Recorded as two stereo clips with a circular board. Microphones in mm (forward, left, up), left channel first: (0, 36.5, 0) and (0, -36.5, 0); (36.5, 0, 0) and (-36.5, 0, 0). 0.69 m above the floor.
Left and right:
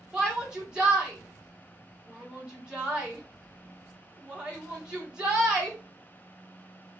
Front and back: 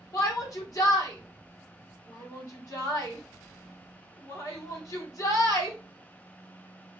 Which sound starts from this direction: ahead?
A shout, at 0.1 s.